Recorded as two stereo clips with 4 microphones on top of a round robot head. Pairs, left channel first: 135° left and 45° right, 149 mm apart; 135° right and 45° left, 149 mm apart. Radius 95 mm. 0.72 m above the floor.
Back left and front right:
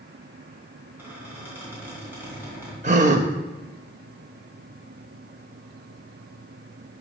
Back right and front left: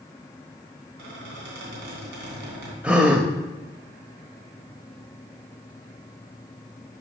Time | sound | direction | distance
1.0 | a squeak | 30° left | 3 m
2.8 | a gasp | 30° right | 0.5 m